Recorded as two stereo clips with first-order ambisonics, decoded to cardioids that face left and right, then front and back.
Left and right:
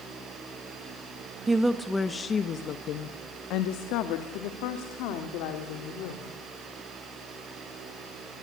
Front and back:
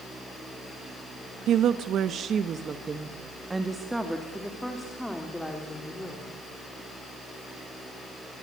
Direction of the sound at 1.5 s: 165° right.